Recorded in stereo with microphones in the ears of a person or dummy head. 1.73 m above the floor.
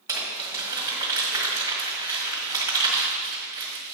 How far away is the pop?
No pop in this recording.